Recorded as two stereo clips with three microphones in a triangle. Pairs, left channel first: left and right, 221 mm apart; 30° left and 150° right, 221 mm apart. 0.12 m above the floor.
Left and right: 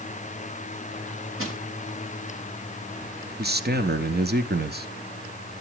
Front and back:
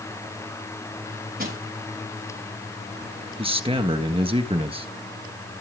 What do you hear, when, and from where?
1.4 s crushing: 105° right, 8 m
3.4 s a man speaking: 95° right, 1.6 m